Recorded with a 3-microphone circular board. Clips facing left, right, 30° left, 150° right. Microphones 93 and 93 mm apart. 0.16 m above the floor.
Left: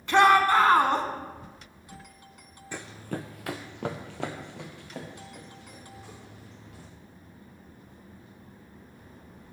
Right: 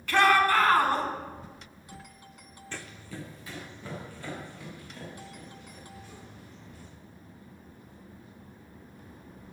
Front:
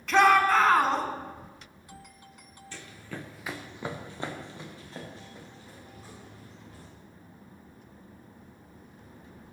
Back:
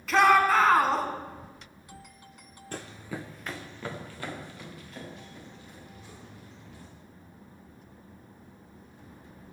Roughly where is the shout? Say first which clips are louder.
Left 3 dB, even; behind left.